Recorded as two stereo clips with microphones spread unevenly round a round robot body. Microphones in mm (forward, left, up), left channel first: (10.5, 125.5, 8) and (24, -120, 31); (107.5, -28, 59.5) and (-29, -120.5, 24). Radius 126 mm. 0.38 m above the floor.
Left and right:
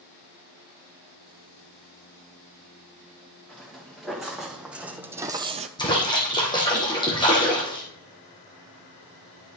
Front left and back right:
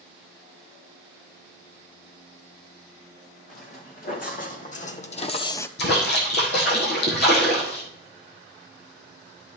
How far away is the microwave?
I don't hear a microwave.